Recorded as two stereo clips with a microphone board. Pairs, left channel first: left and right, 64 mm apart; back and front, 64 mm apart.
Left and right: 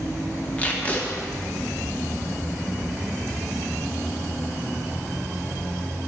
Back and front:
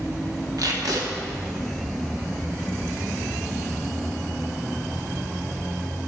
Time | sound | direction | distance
0.6 | tape being pulled | 25° left | 1.3 m